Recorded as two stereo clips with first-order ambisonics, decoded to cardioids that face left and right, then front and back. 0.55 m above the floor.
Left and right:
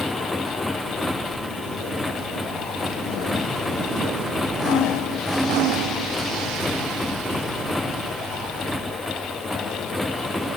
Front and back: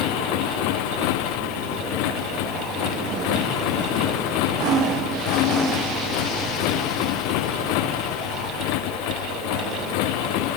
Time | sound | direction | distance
0.0 | a motorcycle | 5° left | ?